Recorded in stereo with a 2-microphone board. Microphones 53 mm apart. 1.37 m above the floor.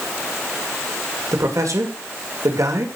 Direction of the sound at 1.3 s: 80° right.